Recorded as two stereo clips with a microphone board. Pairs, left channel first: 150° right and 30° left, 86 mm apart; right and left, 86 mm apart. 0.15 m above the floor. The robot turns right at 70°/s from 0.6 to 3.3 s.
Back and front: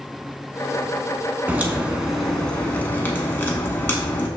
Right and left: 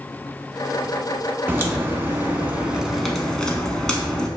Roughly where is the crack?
Left.